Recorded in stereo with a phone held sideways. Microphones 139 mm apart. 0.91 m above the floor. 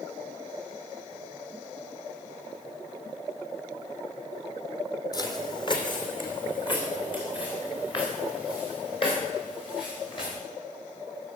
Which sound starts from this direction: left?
Footsteps, at 5.1 s.